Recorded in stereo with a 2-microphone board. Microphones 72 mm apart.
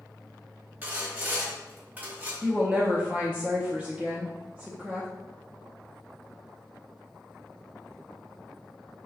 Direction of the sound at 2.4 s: 15° right (ahead or behind).